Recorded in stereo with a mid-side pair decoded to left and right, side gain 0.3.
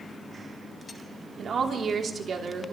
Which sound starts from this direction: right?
A woman speaking, at 1.4 s.